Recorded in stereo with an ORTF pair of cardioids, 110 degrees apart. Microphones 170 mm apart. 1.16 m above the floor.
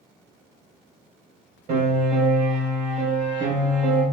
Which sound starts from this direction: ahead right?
A piano, at 1.7 s.